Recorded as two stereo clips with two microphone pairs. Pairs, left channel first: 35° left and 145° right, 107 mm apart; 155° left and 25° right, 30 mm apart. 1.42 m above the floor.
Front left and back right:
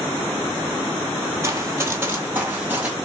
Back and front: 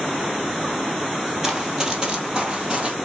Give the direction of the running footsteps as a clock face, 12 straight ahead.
3 o'clock.